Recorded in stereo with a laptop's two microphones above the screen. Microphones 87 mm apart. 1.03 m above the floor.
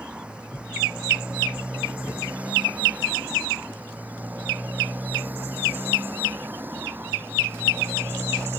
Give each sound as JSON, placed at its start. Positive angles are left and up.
{"t": 0.0, "sound": "a motorcycle", "side_deg": -15}